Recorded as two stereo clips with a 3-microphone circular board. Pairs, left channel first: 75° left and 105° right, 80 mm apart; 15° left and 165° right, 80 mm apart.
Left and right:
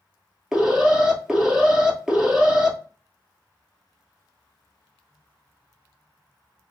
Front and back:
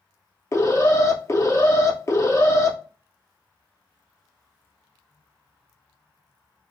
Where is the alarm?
25° right, 1.5 m.